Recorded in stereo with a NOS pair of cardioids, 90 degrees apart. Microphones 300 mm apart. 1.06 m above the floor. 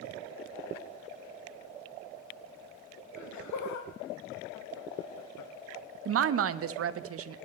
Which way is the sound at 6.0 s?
50° right.